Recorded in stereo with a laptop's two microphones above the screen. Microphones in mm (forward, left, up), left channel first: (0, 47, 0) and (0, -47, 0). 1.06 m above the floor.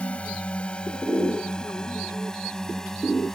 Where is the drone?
15° left (ahead or behind); by 3.4 s 5° left (ahead or behind).